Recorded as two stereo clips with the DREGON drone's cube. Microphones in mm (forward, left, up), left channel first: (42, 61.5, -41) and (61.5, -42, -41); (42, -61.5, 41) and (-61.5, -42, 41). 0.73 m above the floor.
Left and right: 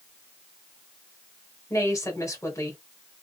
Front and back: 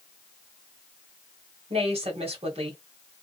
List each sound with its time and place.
1.7 s a woman speaking: 160° left, 1.7 m